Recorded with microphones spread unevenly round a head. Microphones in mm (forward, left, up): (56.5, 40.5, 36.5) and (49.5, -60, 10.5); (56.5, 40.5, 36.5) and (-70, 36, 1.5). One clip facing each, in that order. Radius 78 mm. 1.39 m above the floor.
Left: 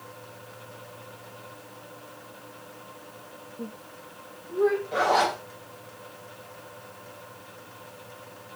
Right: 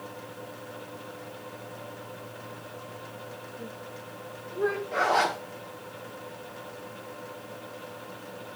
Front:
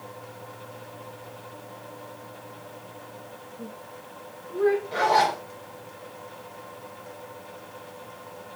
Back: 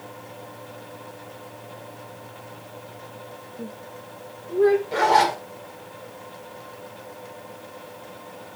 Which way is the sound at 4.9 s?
145° left.